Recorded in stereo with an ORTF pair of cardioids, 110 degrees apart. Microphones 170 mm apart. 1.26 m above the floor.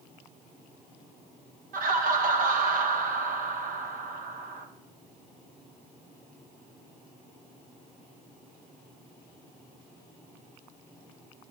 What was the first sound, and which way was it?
Laughter, 60° right.